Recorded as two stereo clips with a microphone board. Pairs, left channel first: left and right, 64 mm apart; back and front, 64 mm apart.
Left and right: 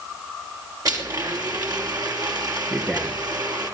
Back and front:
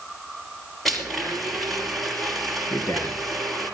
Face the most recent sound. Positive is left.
turn(degrees=-160)